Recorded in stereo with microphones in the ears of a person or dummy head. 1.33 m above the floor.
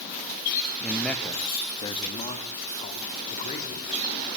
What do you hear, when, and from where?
0.8 s a man speaking: 10° right (ahead or behind), 1.1 m; by 3.9 s 35° left (ahead or behind), 3.5 m